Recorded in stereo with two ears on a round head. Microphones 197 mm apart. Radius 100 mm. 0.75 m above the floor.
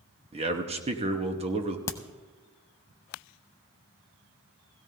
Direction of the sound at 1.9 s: 15° left (ahead or behind).